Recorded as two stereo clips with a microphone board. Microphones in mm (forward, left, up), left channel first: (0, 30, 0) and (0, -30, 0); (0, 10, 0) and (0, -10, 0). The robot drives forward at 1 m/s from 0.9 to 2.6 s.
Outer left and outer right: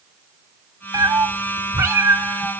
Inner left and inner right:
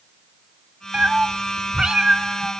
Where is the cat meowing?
80° right, 1.2 m; by 2.5 s 40° right (ahead or behind), 1.9 m.